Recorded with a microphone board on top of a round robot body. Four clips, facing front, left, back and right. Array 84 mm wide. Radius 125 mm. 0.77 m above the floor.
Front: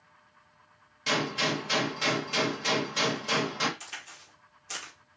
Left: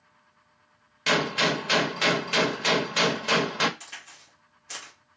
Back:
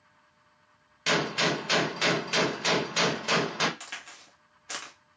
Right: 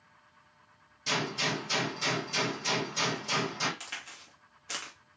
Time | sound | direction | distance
1.1 | a gunshot | 115° left | 0.8 m
3.8 | a crack | 145° right | 2.5 m